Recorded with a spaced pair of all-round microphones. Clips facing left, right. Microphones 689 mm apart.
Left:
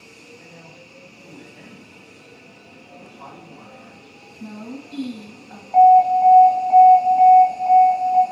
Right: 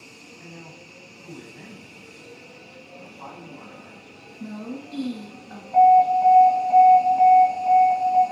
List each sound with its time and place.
0.4 s a man speaking: 35° right (ahead or behind), 5 m
3.0 s a man speaking: 45° left (ahead or behind), 2.5 m
4.4 s a woman speaking: 5° right (ahead or behind), 1.9 m
5.7 s an alarm: 10° right (ahead or behind), 1.7 m